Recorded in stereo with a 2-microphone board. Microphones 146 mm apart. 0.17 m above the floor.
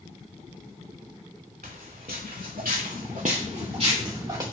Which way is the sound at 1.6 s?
70° right (ahead or behind).